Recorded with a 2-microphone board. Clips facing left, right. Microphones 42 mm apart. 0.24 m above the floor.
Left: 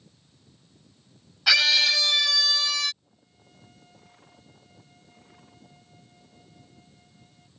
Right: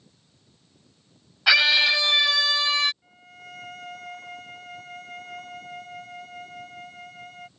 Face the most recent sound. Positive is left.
turn(degrees=-75)  # may be behind; listen again after turning